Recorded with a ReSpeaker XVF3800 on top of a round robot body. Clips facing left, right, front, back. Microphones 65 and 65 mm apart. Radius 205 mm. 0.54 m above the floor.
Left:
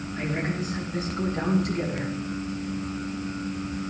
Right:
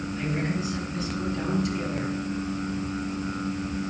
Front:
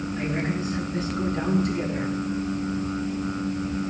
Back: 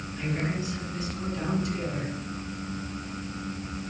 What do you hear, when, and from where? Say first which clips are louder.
0.2 s a woman speaking: left 1 dB, front 2 dB; 50° left, 8.5 m; by 2.1 s 45° left, 11 m